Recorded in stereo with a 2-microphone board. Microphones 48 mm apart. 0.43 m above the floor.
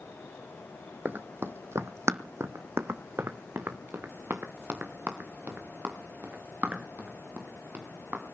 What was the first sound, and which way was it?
Running footsteps, 40° right (ahead or behind).